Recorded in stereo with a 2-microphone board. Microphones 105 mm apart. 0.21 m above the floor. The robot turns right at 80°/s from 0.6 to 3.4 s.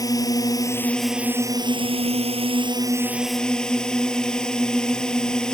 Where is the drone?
145° left; by 5.5 s 5° left.